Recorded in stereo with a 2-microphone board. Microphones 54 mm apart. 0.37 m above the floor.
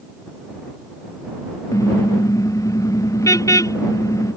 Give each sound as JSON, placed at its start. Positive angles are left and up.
{"t": 1.7, "sound": "a car horn", "side_deg": 85}